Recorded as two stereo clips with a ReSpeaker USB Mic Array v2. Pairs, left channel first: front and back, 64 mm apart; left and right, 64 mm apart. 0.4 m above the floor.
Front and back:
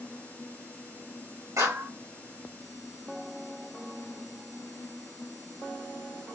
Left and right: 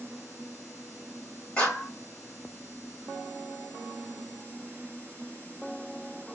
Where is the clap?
160° left, 2.5 m.